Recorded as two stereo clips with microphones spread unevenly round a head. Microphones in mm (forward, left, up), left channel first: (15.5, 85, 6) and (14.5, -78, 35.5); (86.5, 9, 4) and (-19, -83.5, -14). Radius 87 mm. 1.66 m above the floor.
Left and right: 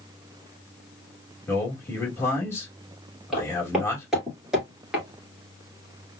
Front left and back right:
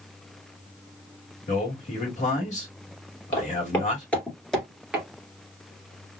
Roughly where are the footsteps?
Ahead.